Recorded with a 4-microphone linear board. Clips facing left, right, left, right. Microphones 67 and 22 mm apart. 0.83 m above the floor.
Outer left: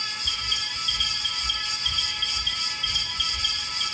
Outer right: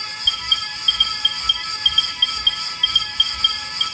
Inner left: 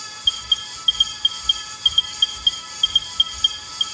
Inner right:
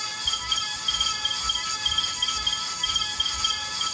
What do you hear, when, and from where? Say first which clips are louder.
0.2 s an alarm: outer right 11 dB, inner left 7 dB; 40° left (ahead or behind), 1.4 m